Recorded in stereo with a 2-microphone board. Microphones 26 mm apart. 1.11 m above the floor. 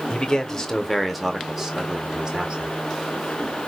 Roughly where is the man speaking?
Left.